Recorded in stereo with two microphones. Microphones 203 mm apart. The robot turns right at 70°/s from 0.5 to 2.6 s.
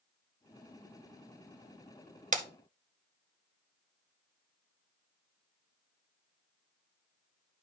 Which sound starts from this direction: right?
Breaking glass, at 2.3 s.